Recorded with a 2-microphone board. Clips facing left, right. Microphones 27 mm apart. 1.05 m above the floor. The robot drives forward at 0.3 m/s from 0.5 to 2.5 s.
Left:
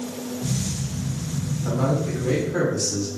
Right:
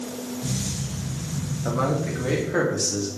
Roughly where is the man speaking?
Right.